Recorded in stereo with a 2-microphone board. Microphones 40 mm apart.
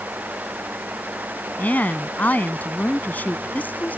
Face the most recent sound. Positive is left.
turn(degrees=45)  # may be behind; listen again after turning